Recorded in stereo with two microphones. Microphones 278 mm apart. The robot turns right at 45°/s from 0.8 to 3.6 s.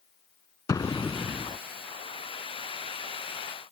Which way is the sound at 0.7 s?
160° left.